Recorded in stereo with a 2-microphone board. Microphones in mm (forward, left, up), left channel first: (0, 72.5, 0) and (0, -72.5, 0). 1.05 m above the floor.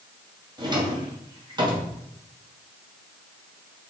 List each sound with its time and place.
0.6 s a drawer: 30° right (ahead or behind), 2.5 m